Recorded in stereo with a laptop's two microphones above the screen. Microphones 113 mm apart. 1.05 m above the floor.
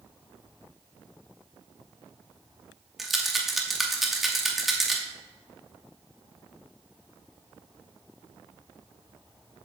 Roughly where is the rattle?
Centre.